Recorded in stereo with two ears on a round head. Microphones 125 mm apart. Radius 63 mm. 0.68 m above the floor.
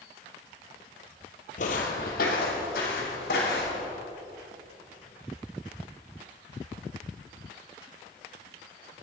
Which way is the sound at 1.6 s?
60° left (ahead or behind).